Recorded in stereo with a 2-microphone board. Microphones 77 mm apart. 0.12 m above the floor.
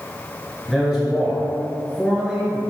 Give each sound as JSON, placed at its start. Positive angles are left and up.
{"t": 0.7, "sound": "a man speaking", "side_deg": -10, "distance_m": 1.8}